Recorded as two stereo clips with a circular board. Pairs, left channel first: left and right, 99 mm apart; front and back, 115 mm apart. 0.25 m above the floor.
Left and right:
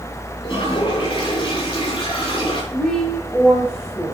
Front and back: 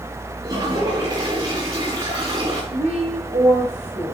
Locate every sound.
0.4 s a toilet flushing: 130° left, 5.5 m
2.7 s a woman speaking: 170° left, 7.5 m